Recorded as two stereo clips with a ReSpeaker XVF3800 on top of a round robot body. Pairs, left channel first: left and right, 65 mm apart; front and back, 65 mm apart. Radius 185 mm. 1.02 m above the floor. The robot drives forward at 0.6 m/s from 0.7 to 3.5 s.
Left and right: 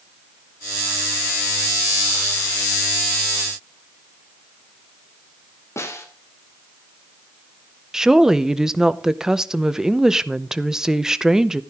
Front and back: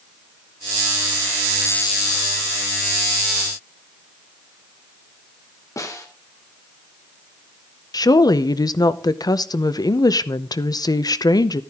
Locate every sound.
5.8 s a snare drum: 40° left, 2.5 m
7.9 s a woman speaking: 10° right, 1.0 m